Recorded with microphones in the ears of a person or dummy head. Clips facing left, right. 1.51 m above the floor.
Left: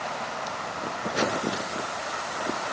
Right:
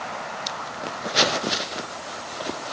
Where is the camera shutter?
I don't hear a camera shutter.